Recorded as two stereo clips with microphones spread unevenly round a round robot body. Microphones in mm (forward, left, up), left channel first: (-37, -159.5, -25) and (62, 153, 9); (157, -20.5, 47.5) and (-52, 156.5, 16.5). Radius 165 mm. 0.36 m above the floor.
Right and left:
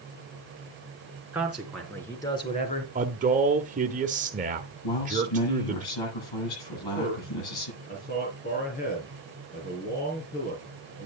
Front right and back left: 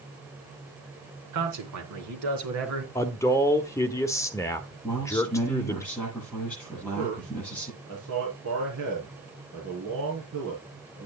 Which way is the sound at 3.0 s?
40° left.